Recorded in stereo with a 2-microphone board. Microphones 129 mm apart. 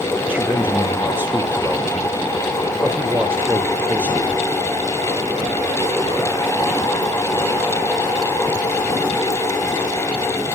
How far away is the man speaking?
About 1.5 m.